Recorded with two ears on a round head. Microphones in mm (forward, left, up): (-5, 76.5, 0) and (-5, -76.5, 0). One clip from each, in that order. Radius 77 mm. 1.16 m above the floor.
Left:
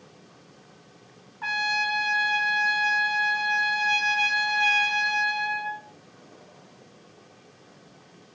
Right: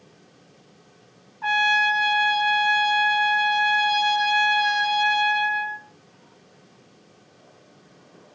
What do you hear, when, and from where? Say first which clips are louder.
1.4 s a trumpet: right 6 dB; 25° left (ahead or behind), 2.0 m